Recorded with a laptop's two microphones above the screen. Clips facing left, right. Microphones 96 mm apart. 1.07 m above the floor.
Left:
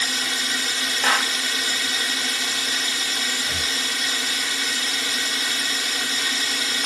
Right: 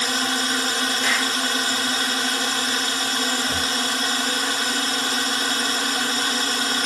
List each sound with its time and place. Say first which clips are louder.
0.0 s a drone: right 5 dB; 45° right (ahead or behind)
1.0 s a clap: left 6 dB; 55° left (ahead or behind)
3.4 s breathing: right 5 dB; 35° right (ahead or behind)